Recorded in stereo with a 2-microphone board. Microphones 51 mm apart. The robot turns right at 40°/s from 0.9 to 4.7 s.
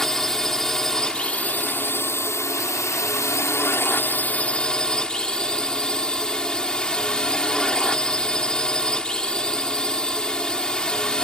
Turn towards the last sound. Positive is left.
turn(degrees=160)